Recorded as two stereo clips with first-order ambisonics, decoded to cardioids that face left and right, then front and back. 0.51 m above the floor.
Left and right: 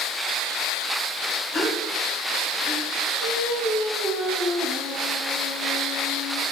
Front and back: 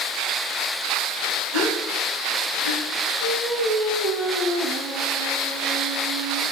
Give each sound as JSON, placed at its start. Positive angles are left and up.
{"t": 1.5, "sound": "a gasp", "azimuth_deg": 150, "distance_m": 3.0}
{"t": 3.2, "sound": "singing", "azimuth_deg": -140, "distance_m": 4.0}